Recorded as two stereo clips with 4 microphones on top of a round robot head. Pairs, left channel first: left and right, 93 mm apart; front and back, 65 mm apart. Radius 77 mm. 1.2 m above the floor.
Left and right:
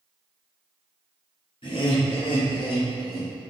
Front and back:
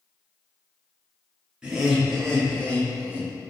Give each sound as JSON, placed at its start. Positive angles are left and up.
{"t": 1.6, "sound": "laughter", "azimuth_deg": 100, "distance_m": 1.3}